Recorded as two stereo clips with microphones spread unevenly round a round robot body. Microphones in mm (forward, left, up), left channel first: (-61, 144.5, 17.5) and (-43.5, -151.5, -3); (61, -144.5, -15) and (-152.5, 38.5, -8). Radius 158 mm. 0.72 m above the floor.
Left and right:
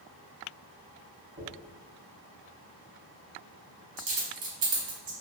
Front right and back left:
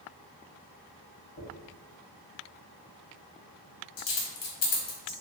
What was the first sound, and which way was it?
A dropped coin, 50° right.